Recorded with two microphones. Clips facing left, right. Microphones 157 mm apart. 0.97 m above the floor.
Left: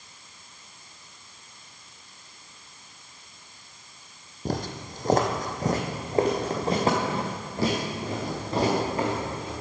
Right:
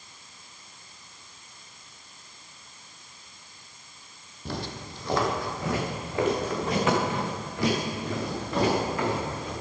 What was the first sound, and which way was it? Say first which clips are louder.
Footsteps: left 4 dB; 45° left (ahead or behind).